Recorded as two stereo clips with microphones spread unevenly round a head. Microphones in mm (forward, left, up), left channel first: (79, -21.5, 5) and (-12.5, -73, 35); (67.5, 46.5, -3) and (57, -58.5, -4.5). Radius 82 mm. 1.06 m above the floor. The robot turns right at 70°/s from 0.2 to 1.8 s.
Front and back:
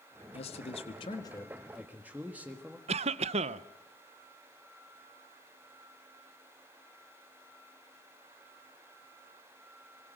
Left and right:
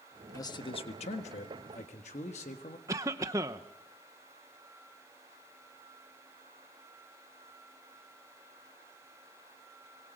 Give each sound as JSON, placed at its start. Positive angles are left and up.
{"t": 0.3, "sound": "a man speaking", "azimuth_deg": 25, "distance_m": 1.4}
{"t": 2.9, "sound": "a cough", "azimuth_deg": -155, "distance_m": 0.6}